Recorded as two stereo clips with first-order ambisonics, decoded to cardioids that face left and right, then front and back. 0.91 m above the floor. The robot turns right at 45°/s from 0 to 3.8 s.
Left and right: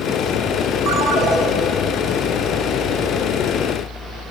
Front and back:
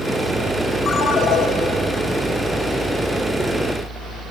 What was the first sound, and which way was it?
A ringtone, 55° right.